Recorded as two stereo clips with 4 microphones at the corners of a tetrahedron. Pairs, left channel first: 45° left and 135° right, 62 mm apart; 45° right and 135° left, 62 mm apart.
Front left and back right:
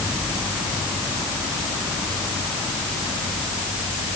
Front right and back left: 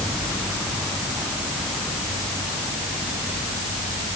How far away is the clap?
No clap in this recording.